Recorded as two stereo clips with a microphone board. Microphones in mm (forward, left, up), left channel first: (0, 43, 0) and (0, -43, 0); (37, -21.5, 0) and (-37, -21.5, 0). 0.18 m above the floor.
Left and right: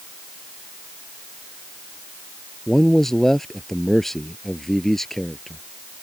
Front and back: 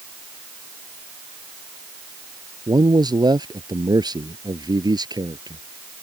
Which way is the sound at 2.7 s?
175° left.